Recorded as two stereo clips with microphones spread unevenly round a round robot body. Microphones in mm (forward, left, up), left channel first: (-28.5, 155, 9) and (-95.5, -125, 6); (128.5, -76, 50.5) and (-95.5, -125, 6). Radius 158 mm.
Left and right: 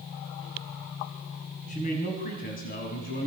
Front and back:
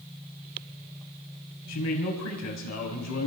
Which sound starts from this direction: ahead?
A man speaking, at 1.7 s.